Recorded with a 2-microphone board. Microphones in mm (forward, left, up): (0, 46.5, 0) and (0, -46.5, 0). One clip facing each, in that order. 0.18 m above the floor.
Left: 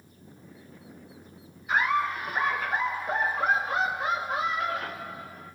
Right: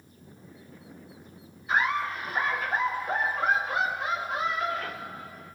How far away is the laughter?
About 3 m.